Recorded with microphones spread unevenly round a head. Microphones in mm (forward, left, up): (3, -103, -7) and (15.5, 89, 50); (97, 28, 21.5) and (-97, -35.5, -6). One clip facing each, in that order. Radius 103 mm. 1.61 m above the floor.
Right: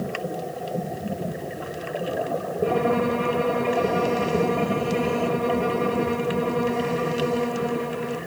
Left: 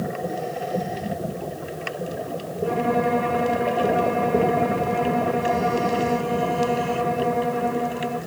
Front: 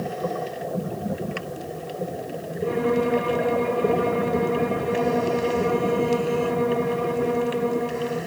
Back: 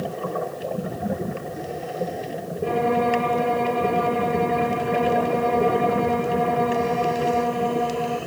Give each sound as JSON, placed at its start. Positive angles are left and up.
{"t": 2.6, "sound": "a violin", "azimuth_deg": -140, "distance_m": 6.0}